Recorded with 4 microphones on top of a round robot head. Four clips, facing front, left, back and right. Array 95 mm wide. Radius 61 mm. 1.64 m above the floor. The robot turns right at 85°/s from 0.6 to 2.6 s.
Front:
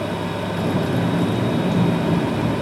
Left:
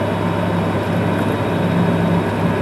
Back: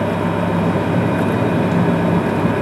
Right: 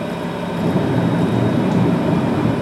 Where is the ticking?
I don't hear ticking.